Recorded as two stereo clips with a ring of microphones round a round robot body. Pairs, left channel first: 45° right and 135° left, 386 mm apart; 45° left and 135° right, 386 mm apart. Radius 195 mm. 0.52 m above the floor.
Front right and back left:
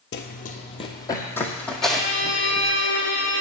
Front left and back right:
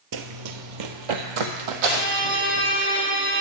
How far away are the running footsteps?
About 0.8 m.